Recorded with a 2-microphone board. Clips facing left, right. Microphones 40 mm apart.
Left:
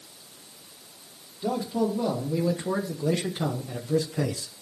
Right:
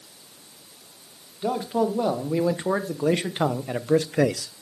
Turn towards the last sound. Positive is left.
turn(degrees=-80)